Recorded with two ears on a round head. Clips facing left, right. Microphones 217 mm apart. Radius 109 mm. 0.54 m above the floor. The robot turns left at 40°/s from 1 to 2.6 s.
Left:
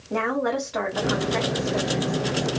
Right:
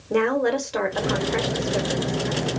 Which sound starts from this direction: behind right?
A woman speaking, at 0.1 s.